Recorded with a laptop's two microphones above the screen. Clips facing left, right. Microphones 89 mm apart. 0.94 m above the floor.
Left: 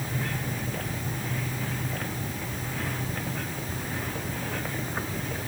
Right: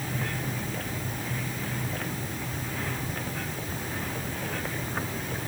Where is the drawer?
No drawer in this recording.